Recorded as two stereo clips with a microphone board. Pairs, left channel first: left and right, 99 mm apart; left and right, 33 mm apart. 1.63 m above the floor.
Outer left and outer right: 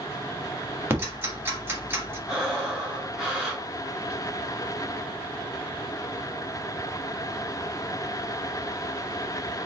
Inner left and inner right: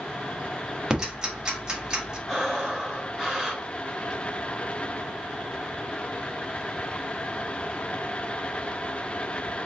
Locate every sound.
0.9 s ticking: 20° right (ahead or behind), 1.3 m
2.3 s breathing: 10° right (ahead or behind), 1.6 m